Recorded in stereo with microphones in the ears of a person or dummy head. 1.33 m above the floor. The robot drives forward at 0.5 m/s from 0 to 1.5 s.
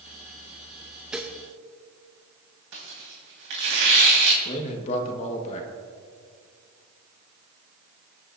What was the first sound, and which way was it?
Dishes clattering, 5° right (ahead or behind).